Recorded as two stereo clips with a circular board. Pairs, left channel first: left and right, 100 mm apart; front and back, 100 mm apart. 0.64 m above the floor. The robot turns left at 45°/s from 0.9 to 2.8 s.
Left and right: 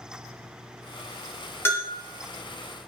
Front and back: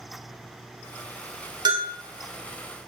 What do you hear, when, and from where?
1.6 s a bell: 150° left, 0.6 m; by 1.9 s 140° left, 0.6 m